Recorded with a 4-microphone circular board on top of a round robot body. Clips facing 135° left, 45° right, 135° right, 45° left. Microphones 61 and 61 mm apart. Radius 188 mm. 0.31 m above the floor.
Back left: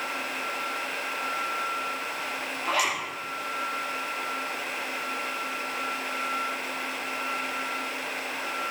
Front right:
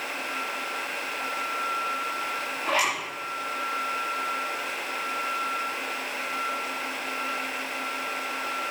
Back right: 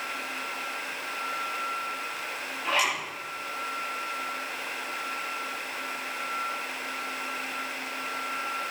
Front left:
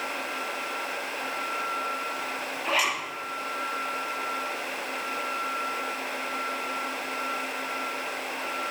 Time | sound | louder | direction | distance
2.6 | a zipper | front right 1 dB, even | 35° right | 7.5 m